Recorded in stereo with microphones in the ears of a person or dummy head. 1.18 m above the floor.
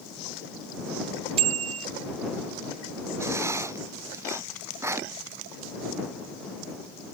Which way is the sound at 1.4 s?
35° right (ahead or behind).